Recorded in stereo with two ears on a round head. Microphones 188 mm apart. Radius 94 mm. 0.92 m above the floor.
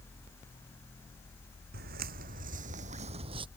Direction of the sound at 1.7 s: 45° right (ahead or behind).